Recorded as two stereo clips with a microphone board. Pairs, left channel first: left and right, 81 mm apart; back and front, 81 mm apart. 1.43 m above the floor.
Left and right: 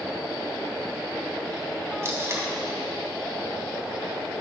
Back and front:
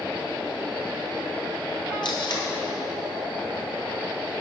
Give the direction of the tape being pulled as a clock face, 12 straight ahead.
5 o'clock.